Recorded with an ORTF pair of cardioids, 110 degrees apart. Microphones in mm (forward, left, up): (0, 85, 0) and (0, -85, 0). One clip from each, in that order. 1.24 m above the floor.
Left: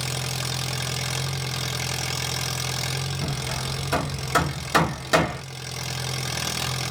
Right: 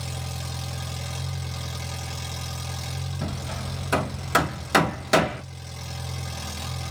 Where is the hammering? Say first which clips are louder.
Left 5 dB; 10° right, 1.5 m.